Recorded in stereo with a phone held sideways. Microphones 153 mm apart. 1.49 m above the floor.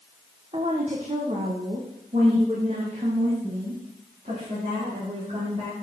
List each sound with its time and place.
0.5 s a woman speaking: 40° right (ahead or behind), 0.9 m; by 5.7 s 50° right (ahead or behind), 4 m